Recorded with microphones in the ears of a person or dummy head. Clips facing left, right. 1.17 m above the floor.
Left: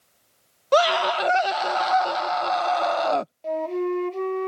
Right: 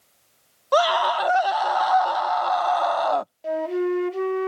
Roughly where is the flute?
Centre.